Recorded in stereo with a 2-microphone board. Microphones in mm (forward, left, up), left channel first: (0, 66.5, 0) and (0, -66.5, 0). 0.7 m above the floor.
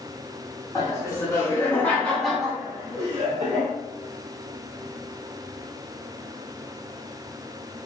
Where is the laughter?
30° left (ahead or behind), 1.6 m; by 3.7 s 50° right (ahead or behind), 0.9 m.